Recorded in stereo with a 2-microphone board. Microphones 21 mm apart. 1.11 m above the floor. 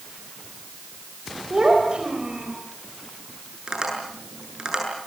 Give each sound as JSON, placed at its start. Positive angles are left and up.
{"t": 1.5, "sound": "a child speaking", "side_deg": -45, "distance_m": 4.5}
{"t": 3.7, "sound": "tapping", "side_deg": -35, "distance_m": 8.5}